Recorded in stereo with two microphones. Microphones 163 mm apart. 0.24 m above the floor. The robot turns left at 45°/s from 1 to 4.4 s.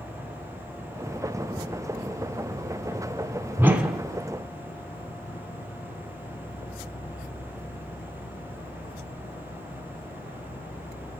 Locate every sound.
0.0 s an insect: 145° right, 2.5 m; by 11.2 s 65° left, 2.5 m
3.6 s a whoosh: 15° right (ahead or behind), 0.8 m; by 4.0 s 5° left (ahead or behind), 0.8 m